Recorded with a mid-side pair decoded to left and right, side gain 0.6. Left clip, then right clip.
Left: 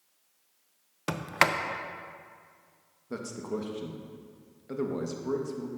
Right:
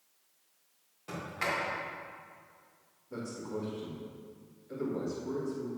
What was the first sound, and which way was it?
A sliding door, 70° left.